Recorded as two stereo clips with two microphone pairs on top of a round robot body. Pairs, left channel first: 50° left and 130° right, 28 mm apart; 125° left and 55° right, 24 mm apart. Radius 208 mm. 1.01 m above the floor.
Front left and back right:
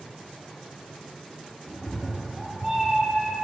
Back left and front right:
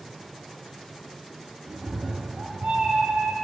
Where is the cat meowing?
35° right, 1.6 m; by 3.4 s 85° right, 1.8 m.